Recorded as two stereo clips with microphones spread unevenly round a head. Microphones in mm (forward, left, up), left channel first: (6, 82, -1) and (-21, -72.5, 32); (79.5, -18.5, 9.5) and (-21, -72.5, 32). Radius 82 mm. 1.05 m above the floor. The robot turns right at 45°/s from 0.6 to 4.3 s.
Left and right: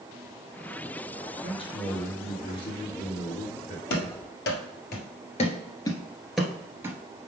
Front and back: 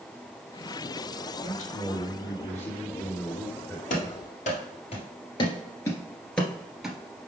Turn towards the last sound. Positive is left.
turn(degrees=-100)